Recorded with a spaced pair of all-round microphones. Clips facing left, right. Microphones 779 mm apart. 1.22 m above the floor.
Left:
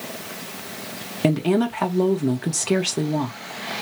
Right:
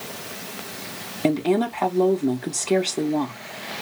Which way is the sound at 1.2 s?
45° left (ahead or behind).